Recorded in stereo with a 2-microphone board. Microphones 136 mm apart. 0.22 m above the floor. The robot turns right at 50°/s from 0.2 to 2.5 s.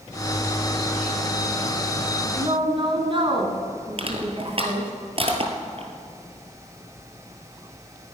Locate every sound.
2.4 s a woman speaking: 35° right (ahead or behind), 2 m; by 4.9 s 40° right (ahead or behind), 2 m
4.0 s crushing: 45° right (ahead or behind), 1.8 m